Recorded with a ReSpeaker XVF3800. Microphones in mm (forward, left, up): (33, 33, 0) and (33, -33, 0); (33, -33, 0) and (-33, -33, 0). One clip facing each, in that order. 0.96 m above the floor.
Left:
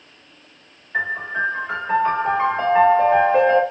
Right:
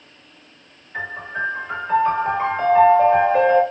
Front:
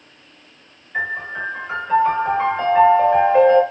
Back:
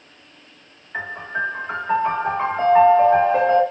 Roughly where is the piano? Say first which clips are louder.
Left 4 dB, front 2 dB; behind left.